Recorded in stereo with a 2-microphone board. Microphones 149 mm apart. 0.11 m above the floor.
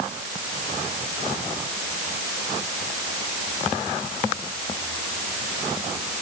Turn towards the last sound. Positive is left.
No sound to turn to.